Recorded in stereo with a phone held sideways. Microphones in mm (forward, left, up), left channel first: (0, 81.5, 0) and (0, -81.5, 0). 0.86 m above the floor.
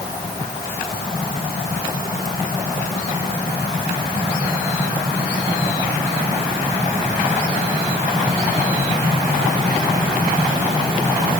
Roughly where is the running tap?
I don't hear a running tap.